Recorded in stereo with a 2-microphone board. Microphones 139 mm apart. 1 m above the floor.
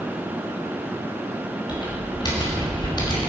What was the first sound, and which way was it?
Typing on a keyboard, 30° left (ahead or behind).